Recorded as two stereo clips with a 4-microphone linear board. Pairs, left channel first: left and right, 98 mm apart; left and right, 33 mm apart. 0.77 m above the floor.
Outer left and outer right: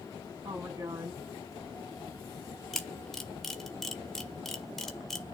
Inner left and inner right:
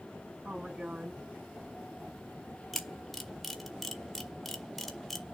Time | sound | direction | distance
0.4 | a woman speaking | 30° right (ahead or behind) | 4.5 m
2.7 | a camera shutter | 5° left (ahead or behind) | 1.8 m